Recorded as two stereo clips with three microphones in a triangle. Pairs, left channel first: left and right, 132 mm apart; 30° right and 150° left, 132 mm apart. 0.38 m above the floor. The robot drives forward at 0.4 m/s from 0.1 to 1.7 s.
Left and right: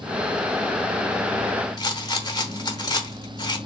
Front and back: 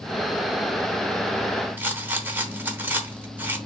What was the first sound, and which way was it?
A rattle, 90° left.